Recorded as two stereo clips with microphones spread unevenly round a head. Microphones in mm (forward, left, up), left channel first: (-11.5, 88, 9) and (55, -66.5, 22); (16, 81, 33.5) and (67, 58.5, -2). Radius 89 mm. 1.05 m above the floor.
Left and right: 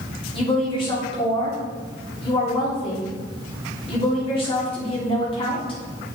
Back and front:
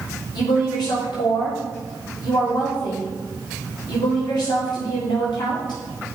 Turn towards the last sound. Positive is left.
turn(degrees=175)